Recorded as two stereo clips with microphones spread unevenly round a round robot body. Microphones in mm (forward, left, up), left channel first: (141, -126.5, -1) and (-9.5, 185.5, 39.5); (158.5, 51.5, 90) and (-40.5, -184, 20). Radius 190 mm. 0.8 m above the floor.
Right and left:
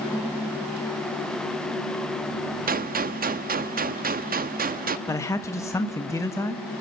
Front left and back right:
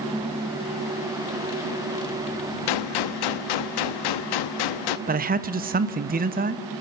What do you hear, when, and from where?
2.7 s a gunshot: 50° left, 0.7 m
5.1 s a man speaking: 135° right, 0.9 m